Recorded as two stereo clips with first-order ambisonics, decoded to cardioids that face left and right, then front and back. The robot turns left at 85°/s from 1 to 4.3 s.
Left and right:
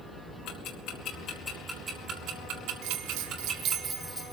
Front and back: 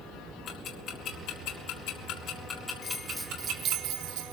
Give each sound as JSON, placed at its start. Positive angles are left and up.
{"t": 0.5, "sound": "ticking", "azimuth_deg": 55, "distance_m": 4.0}
{"t": 2.8, "sound": "a bell", "azimuth_deg": -65, "distance_m": 1.1}